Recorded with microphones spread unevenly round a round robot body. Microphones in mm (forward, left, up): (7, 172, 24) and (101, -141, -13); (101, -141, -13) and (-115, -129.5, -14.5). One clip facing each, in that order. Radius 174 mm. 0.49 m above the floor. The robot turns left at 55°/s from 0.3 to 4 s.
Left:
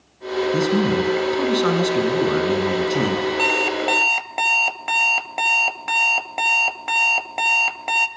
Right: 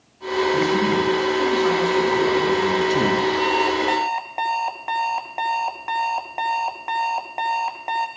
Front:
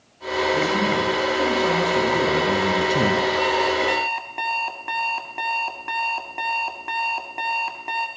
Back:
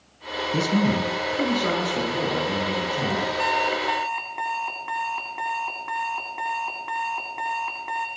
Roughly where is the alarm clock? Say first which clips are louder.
Right 1 dB, front 5 dB; left.